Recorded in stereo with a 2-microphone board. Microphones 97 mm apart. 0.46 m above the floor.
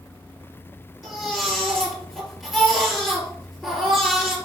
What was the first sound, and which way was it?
A baby crying, centre (ahead or behind).